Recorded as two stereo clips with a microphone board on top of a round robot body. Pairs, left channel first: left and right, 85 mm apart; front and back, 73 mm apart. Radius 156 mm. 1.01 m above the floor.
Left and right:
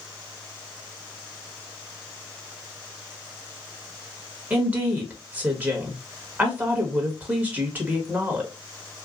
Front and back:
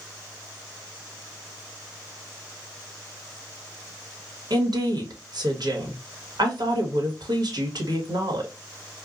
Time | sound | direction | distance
4.5 | a woman speaking | 160° right | 1.5 m